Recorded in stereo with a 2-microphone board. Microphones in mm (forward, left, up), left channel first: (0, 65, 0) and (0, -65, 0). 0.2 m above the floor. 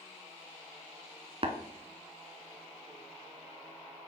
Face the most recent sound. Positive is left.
turn(degrees=-50)  # may be behind; listen again after turning